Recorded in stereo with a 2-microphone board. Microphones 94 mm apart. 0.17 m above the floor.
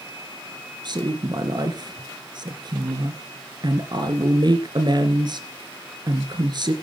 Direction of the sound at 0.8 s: 50° right (ahead or behind).